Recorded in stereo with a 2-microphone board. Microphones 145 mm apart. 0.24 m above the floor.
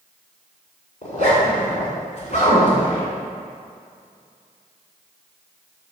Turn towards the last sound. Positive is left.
turn(degrees=55)  # may be behind; listen again after turning